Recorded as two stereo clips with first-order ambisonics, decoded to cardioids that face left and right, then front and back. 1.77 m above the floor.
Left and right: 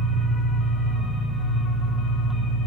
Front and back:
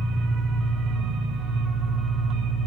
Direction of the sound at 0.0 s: 150° left.